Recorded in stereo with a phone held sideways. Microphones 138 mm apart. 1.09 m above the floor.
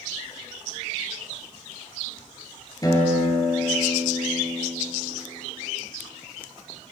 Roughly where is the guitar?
Left.